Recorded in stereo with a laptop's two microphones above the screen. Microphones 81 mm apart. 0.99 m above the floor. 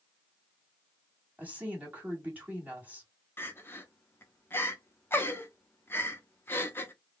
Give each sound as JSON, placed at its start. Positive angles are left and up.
{"t": 1.4, "sound": "a woman speaking", "side_deg": -20, "distance_m": 1.9}
{"t": 3.4, "sound": "crying", "side_deg": 30, "distance_m": 0.7}